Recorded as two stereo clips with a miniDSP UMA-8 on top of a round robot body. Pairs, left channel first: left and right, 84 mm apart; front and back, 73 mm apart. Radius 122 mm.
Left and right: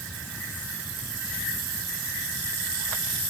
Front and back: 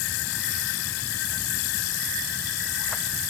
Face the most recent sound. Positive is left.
No sound to turn to.